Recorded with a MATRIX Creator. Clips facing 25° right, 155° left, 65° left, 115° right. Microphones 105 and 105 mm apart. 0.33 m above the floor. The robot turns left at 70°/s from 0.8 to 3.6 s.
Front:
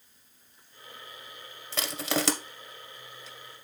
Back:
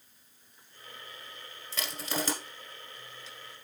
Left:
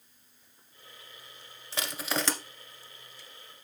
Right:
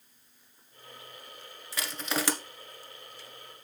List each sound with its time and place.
1.7 s crushing: 5° left, 1.1 m; by 2.3 s 35° right, 1.1 m